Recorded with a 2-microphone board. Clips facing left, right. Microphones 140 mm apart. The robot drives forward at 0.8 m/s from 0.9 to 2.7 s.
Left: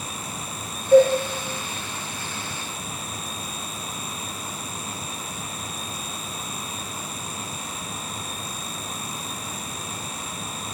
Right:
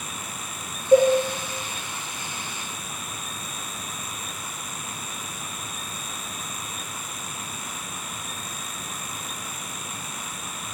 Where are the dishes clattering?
25° right (ahead or behind), 0.9 m; by 1.1 s 20° right (ahead or behind), 1.0 m.